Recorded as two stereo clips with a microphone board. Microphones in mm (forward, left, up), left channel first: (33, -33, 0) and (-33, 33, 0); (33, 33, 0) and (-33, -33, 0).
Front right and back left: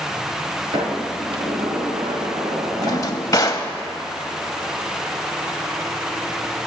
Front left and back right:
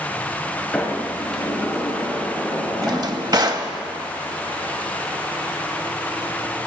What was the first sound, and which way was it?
A sliding door, 130° left.